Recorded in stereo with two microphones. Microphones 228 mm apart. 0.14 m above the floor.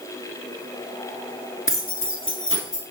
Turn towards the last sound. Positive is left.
turn(degrees=60)  # may be behind; listen again after turning